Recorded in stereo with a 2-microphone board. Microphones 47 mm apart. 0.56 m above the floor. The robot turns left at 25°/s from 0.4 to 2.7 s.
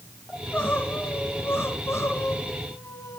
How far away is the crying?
About 4.5 m.